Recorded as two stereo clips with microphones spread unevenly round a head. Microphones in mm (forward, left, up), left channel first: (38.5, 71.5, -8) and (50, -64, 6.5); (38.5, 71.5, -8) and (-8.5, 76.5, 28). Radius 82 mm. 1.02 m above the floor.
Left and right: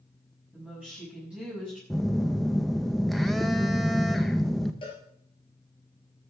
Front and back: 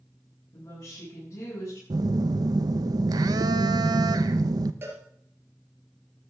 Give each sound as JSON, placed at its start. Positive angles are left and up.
{"t": 0.5, "sound": "a woman speaking", "azimuth_deg": -5, "distance_m": 6.5}
{"t": 1.9, "sound": "a phone buzzing", "azimuth_deg": 180, "distance_m": 0.6}
{"t": 4.8, "sound": "a cowbell", "azimuth_deg": 160, "distance_m": 3.5}